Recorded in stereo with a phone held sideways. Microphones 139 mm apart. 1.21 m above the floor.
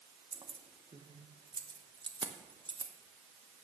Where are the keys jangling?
30° right (ahead or behind), 0.7 m.